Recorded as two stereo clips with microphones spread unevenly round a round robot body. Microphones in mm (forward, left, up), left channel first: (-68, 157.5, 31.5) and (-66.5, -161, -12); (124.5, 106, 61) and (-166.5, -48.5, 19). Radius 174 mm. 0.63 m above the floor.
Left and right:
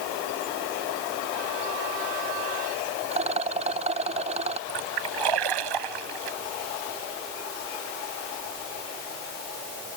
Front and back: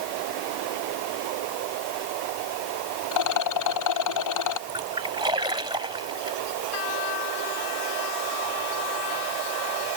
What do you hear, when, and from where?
3.1 s a rattle: 15° right
4.7 s a splash: 75° right